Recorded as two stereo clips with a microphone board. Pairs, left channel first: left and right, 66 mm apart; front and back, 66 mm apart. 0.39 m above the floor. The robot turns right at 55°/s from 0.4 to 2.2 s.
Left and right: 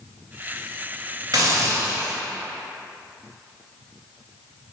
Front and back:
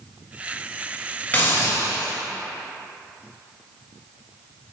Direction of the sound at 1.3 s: 60° right.